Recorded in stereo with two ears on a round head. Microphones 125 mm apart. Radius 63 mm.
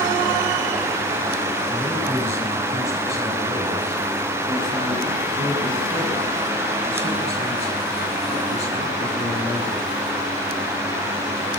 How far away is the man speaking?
About 6 m.